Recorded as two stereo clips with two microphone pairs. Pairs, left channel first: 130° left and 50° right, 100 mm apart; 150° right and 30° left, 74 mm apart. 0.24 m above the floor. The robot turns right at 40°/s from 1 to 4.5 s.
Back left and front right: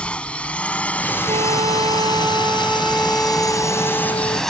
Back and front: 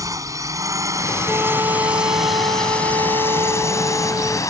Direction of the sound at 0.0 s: 55° left.